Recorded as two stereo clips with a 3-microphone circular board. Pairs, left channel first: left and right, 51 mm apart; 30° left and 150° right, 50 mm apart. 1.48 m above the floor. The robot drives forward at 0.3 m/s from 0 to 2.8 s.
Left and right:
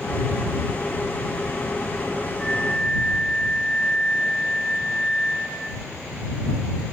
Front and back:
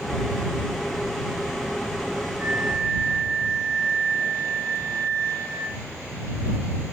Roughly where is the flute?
Behind left.